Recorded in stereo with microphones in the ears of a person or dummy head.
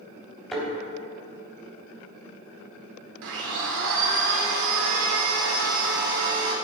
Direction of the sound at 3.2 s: 70° right (ahead or behind).